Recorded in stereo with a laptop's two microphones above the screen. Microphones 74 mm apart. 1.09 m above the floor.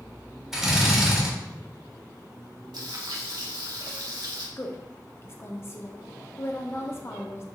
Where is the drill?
5° right (ahead or behind), 3.5 m.